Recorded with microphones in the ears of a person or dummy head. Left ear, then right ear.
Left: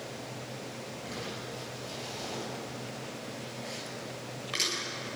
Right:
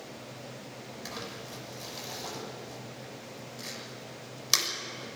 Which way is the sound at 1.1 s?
85° right.